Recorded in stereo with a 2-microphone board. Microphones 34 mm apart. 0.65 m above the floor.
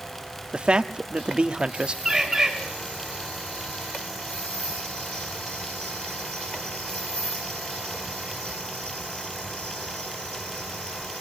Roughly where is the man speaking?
Right.